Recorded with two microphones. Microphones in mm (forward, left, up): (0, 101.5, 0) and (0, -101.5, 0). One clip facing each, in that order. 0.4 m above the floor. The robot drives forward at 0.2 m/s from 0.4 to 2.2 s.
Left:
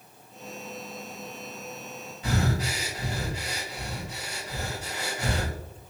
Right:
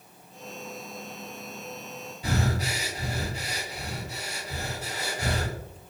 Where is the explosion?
I don't hear an explosion.